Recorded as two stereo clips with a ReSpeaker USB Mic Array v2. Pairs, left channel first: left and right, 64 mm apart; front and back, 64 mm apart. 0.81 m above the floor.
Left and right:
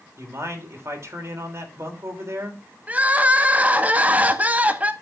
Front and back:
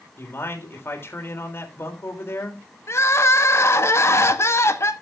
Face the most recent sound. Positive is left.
turn(degrees=-30)